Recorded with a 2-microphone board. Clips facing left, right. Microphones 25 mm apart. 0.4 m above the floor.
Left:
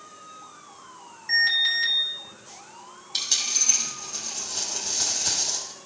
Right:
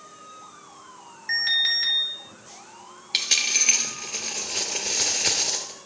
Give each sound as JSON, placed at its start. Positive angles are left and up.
{"t": 1.3, "sound": "an alarm", "side_deg": -20, "distance_m": 1.8}
{"t": 3.1, "sound": "a dropped coin", "side_deg": -75, "distance_m": 1.1}